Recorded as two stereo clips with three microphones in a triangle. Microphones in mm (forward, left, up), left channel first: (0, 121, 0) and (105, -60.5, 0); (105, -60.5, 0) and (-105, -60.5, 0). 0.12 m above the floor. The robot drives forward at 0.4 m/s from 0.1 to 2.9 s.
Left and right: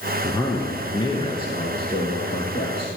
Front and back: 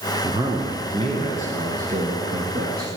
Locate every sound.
0.2 s a man speaking: 155° left, 1.1 m; by 2.9 s 175° left, 1.7 m